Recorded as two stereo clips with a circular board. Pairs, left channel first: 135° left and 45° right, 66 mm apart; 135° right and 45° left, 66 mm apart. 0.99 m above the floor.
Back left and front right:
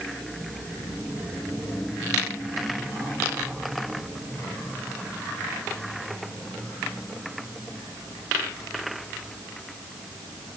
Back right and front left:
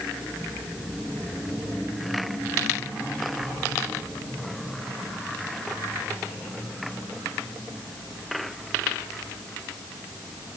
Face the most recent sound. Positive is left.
No sound to turn to.